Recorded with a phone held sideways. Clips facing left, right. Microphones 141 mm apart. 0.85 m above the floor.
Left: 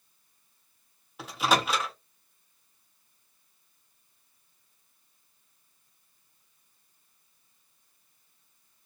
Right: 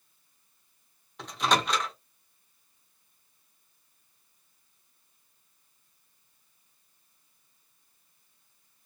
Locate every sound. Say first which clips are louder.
1.2 s a microwave: left 1 dB; 5° left (ahead or behind), 0.6 m